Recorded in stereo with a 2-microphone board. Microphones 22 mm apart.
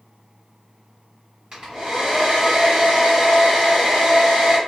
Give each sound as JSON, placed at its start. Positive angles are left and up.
{"t": 1.5, "sound": "a hair dryer", "side_deg": -45, "distance_m": 1.5}